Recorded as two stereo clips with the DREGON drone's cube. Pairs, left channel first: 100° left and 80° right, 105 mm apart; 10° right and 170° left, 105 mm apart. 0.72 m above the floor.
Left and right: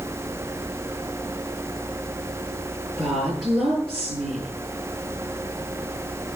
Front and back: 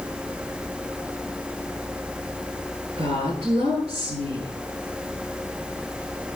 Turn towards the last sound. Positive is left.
turn(degrees=-165)